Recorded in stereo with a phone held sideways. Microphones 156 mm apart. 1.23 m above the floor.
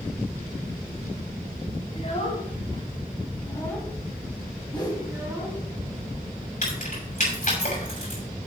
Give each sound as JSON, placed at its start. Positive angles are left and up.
{"t": 1.9, "sound": "a child speaking", "side_deg": 45, "distance_m": 4.0}
{"t": 4.7, "sound": "a whoosh", "side_deg": 25, "distance_m": 3.0}
{"t": 6.6, "sound": "keys jangling", "side_deg": 55, "distance_m": 6.0}